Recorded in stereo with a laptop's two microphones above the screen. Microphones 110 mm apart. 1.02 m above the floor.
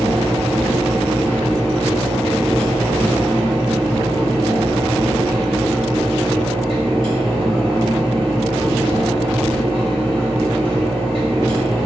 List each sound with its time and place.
0.0 s a fan: 45° right (ahead or behind), 1.4 m